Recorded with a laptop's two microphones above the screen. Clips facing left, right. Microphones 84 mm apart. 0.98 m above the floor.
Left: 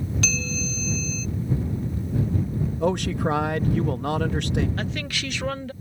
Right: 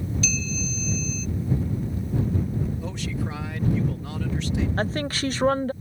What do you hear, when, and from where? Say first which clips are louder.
0.2 s a bell: left 1 dB; 75° left (ahead or behind)
2.8 s a man speaking: left 8 dB; 65° left (ahead or behind)
4.8 s a woman speaking: right 4 dB; 35° right (ahead or behind)